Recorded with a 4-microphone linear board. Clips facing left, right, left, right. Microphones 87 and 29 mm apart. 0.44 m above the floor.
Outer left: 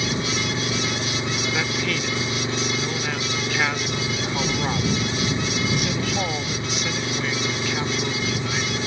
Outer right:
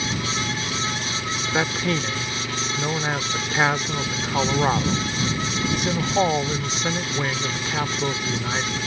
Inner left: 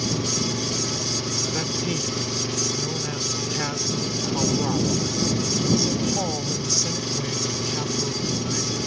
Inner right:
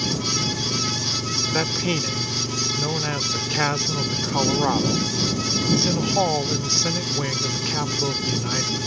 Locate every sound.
0.0 s an engine running: 25° left (ahead or behind)
1.5 s a man speaking: 30° right (ahead or behind)